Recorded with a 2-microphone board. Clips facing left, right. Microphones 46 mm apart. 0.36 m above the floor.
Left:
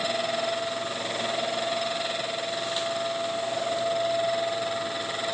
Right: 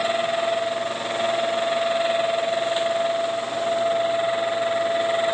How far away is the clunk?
I don't hear a clunk.